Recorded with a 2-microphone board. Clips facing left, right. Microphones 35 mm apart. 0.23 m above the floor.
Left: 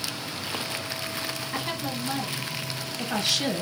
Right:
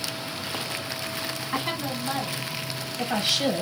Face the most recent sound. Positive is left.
turn(degrees=-15)  # may be behind; listen again after turning